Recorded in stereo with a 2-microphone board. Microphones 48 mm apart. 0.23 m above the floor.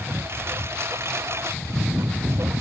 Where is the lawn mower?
55° right (ahead or behind); by 2.6 s 70° right (ahead or behind).